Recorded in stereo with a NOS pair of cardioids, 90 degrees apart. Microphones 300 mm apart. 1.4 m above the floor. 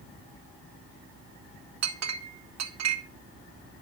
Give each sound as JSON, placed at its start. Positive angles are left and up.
{"t": 1.8, "sound": "a clink", "azimuth_deg": -60, "distance_m": 1.2}